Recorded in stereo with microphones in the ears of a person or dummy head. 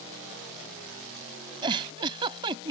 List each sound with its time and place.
1.6 s a giggle: 30° right (ahead or behind)